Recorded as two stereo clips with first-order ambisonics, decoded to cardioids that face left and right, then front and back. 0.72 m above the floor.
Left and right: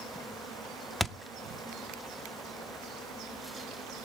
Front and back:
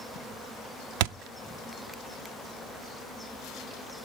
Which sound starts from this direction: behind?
A thud, at 1.0 s.